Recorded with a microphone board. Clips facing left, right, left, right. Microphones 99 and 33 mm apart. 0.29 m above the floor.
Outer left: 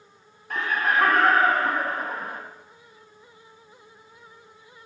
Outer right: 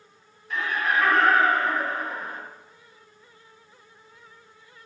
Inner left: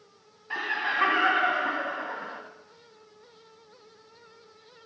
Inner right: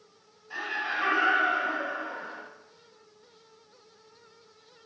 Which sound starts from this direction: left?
Laughter, at 0.5 s.